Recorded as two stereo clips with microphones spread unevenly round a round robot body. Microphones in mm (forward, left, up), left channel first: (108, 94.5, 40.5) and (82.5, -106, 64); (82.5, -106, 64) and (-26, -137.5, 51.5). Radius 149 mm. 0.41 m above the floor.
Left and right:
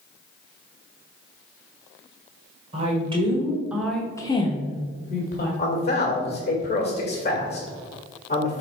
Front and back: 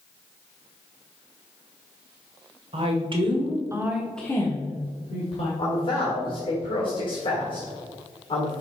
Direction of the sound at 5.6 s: 50° left.